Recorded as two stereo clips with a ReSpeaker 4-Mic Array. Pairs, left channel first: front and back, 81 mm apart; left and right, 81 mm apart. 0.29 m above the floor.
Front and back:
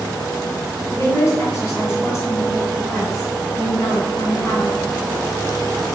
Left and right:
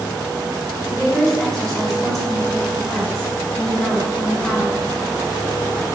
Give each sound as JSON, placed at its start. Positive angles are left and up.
{"t": 0.9, "sound": "a woman speaking", "azimuth_deg": 10, "distance_m": 1.9}